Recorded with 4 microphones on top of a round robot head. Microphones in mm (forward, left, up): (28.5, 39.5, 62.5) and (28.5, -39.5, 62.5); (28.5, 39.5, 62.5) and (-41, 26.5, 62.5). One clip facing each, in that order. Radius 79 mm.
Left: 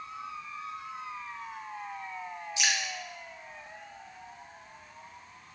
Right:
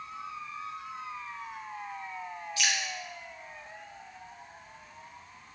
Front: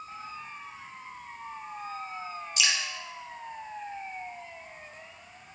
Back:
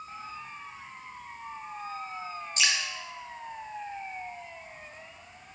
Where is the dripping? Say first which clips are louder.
Left 1 dB, back 1 dB; 150° left, 0.7 m.